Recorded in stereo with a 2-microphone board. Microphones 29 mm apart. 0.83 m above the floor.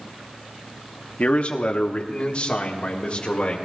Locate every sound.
1.2 s a man speaking: 55° left (ahead or behind), 1.2 m; by 3.6 s 45° left (ahead or behind), 2.5 m